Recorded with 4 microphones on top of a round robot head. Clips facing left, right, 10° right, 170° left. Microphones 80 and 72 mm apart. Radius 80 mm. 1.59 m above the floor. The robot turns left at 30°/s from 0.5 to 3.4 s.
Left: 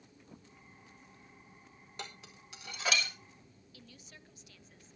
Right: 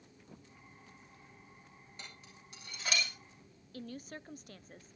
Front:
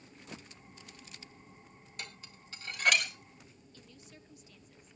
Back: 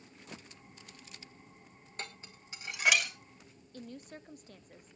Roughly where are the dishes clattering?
Behind left.